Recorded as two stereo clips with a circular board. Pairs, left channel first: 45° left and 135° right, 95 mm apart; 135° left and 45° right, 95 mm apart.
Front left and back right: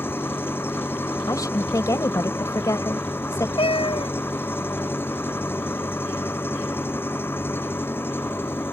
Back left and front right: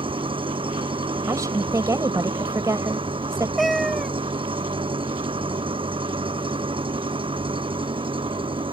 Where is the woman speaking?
Straight ahead.